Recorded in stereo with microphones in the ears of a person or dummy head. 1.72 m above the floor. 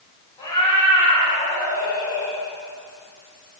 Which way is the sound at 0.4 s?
25° left (ahead or behind).